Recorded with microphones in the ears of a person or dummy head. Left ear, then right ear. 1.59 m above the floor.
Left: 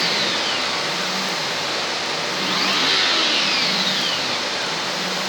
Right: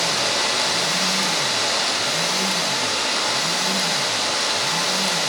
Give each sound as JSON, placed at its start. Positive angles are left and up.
{"t": 0.0, "sound": "running water", "side_deg": -80, "distance_m": 3.0}